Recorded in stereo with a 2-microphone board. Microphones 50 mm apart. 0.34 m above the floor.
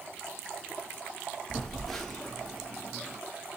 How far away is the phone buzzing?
About 1.4 m.